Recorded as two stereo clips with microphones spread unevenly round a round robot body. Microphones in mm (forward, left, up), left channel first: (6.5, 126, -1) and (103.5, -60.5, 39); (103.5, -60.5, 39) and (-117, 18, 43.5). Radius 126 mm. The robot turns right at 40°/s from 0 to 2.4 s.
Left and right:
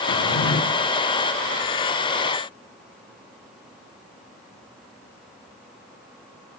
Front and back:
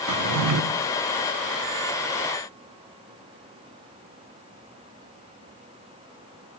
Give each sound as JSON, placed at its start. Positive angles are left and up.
{"t": 0.1, "sound": "a drawer", "azimuth_deg": 140, "distance_m": 0.7}